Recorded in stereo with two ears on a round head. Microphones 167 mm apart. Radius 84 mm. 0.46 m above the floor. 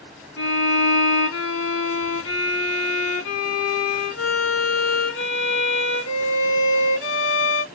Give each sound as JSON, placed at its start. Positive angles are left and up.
{"t": 0.4, "sound": "a violin", "side_deg": 75, "distance_m": 3.0}